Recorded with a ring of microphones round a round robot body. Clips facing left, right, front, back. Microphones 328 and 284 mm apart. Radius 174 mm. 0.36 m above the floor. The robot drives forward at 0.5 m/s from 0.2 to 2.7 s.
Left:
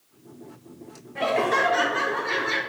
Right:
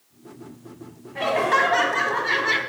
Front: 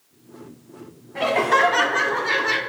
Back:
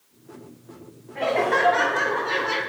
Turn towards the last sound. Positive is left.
turn(degrees=-25)